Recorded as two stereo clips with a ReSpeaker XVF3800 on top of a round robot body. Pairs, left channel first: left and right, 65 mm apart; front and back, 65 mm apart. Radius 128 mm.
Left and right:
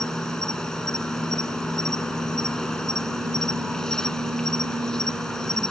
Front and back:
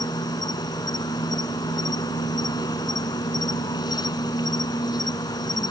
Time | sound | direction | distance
0.0 | an insect | 10° left | ?